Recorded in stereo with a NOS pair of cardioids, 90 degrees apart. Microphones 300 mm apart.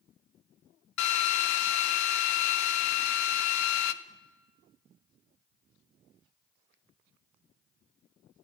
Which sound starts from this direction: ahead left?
A drill, at 1.0 s.